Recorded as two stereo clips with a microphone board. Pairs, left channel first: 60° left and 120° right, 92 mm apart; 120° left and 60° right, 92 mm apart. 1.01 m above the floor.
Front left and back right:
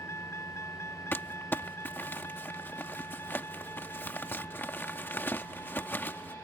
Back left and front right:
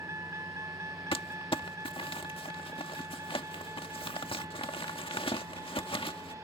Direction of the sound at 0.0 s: Straight ahead.